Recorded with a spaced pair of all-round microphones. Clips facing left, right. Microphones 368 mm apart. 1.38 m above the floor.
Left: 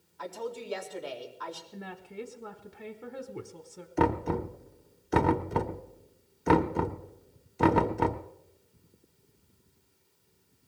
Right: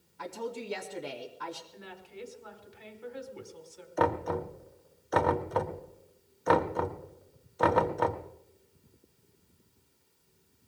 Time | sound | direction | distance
0.2 | a woman speaking | 35° right (ahead or behind) | 2.5 m
1.7 | a woman speaking | 60° left (ahead or behind) | 0.9 m
4.0 | knocking | 40° left (ahead or behind) | 0.8 m